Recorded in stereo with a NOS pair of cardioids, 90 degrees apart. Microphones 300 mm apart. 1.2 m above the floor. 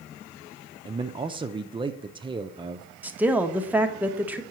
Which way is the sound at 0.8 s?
15° right.